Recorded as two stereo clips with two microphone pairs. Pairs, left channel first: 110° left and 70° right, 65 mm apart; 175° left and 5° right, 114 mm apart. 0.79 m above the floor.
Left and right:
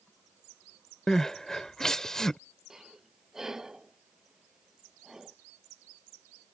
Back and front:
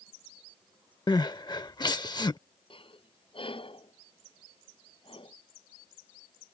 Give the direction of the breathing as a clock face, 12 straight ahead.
5 o'clock.